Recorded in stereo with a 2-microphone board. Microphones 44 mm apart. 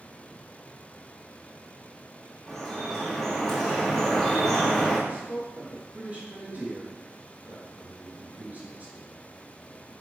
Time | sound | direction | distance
2.5 | dripping | 10° left (ahead or behind) | 2.5 m
5.1 | a man speaking | 35° right (ahead or behind) | 3 m